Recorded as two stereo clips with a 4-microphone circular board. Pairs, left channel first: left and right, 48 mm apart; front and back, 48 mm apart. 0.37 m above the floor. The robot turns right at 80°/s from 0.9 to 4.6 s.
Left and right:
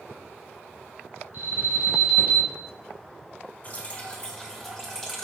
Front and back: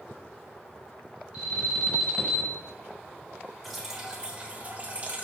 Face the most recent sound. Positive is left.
turn(degrees=165)